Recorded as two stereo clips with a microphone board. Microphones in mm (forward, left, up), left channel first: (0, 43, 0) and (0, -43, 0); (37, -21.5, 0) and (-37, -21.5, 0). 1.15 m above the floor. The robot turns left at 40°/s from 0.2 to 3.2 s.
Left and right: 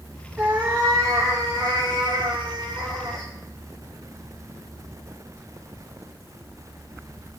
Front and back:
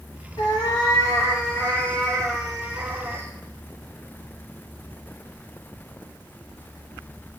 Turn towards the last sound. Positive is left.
turn(degrees=-125)